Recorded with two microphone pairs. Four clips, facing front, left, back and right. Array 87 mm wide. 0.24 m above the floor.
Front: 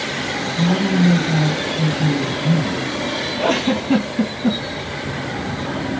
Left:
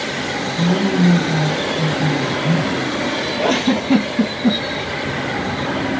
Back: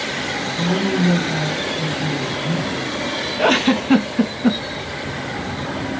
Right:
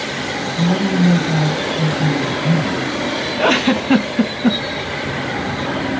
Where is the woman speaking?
45° right, 1.3 m.